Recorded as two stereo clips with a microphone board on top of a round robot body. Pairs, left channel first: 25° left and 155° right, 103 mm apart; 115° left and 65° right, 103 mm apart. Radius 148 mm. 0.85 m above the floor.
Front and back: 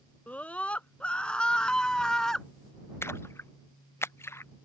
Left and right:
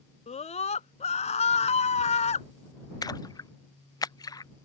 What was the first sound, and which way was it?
A scream, 100° left.